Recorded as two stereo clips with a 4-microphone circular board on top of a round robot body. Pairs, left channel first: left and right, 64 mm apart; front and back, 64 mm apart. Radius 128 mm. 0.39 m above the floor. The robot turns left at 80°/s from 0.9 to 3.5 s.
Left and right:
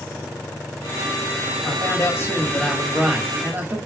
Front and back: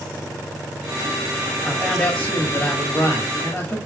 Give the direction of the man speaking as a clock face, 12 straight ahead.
9 o'clock.